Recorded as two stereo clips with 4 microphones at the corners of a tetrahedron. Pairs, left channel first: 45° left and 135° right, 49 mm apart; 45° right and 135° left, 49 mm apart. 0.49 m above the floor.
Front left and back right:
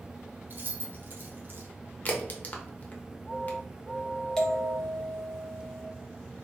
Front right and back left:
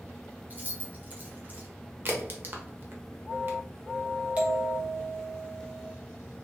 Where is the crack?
95° left, 0.9 m.